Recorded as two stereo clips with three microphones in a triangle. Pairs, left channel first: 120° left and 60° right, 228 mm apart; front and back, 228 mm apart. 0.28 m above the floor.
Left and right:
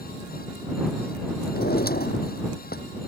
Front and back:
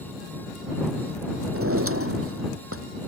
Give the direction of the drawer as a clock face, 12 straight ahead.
6 o'clock.